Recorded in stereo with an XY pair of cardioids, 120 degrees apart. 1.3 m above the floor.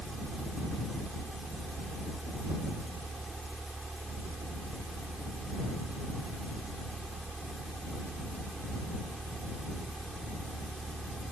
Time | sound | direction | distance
0.0 | a fan | 20° right | ?